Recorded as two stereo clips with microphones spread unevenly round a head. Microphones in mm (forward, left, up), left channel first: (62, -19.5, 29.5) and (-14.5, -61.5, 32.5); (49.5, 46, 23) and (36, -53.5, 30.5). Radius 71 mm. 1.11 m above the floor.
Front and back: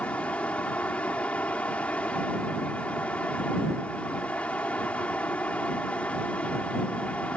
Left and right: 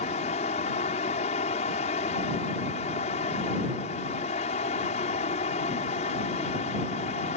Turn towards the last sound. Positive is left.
turn(degrees=110)